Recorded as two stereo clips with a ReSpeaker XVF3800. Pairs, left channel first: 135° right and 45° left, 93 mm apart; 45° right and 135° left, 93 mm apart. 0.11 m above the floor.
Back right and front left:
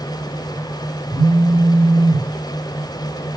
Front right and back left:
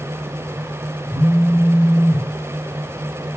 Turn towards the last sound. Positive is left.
turn(degrees=45)